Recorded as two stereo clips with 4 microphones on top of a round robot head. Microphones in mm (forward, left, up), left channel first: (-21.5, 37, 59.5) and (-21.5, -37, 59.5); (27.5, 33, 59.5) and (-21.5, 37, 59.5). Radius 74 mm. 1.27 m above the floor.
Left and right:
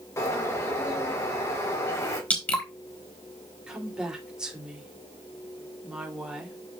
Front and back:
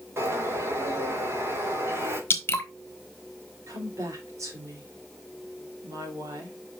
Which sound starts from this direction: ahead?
Dripping, at 2.3 s.